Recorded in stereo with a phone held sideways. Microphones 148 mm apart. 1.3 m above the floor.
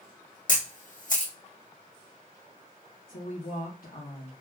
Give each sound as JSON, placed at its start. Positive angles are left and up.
{"t": 0.5, "sound": "a camera shutter", "side_deg": 65, "distance_m": 1.4}
{"t": 3.1, "sound": "a woman speaking", "side_deg": 75, "distance_m": 1.0}